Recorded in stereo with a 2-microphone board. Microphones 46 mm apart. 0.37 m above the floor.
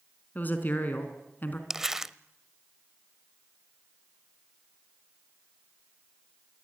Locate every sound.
0.3 s a woman speaking: 40° left (ahead or behind), 3.5 m
1.7 s crumpling: 10° right (ahead or behind), 0.5 m